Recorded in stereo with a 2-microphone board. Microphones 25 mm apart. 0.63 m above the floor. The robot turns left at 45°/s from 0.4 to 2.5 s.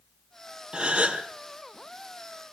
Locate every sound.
0.7 s a gasp: 45° right (ahead or behind), 3.5 m; by 1.2 s 70° right (ahead or behind), 3.5 m